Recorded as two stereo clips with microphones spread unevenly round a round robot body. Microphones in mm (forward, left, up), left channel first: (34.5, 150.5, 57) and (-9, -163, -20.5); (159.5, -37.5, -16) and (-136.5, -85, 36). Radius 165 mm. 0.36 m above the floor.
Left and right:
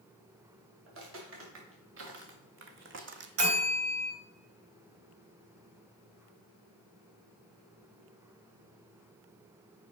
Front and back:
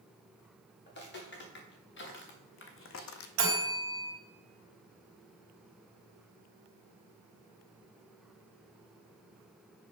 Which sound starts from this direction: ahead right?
Footsteps, at 0.9 s.